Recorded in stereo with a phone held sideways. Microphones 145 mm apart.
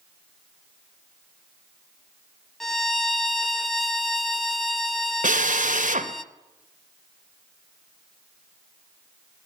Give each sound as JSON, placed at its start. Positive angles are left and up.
{"t": 2.6, "sound": "a violin", "side_deg": 0, "distance_m": 1.0}
{"t": 5.2, "sound": "a drill", "side_deg": -70, "distance_m": 2.5}